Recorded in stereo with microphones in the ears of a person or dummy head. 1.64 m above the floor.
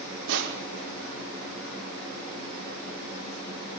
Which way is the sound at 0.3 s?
65° right (ahead or behind).